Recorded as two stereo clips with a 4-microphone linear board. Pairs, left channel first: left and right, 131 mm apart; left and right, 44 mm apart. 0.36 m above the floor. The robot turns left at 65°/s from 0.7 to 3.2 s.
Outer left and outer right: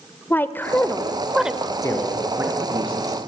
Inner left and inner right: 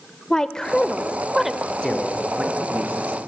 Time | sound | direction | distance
0.3 | a woman speaking | 15° left (ahead or behind) | 1.0 m
1.8 | a man speaking | 25° left (ahead or behind) | 5 m